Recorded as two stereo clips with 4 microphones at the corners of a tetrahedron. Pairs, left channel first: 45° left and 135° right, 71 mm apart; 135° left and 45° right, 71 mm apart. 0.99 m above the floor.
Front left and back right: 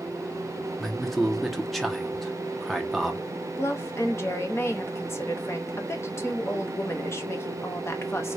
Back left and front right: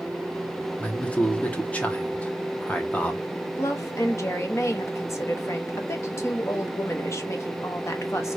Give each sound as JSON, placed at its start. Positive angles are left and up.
{"t": 0.8, "sound": "a man speaking", "azimuth_deg": 130, "distance_m": 0.7}
{"t": 3.5, "sound": "a woman speaking", "azimuth_deg": 90, "distance_m": 0.7}